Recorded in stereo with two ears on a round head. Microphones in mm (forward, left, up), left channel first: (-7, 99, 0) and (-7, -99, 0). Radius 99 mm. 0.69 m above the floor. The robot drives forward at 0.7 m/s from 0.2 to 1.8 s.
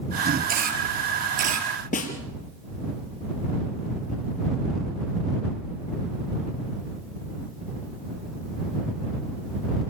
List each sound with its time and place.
0.5 s a camera shutter: 40° right (ahead or behind), 5 m; by 1.7 s 35° right (ahead or behind), 6 m
1.9 s a snare drum: 35° left (ahead or behind), 3.5 m